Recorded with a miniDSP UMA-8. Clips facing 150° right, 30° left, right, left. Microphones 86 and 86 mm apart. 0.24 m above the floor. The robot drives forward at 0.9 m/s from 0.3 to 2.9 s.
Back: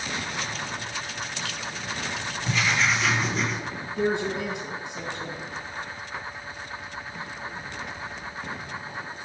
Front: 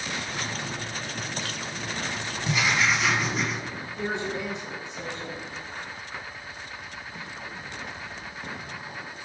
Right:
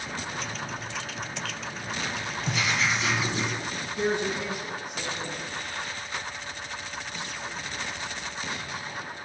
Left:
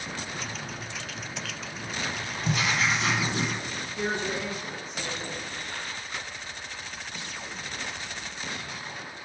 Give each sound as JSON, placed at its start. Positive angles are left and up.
{"t": 2.5, "sound": "writing", "azimuth_deg": 100, "distance_m": 2.0}
{"t": 4.0, "sound": "a woman speaking", "azimuth_deg": -165, "distance_m": 3.0}